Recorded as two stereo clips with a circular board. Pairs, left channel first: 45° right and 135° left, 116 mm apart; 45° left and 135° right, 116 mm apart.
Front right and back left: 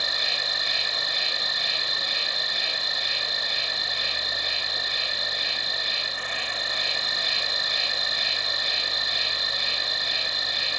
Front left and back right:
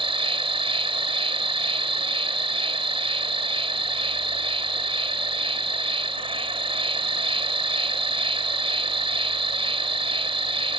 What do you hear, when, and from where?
0.0 s an insect: 135° right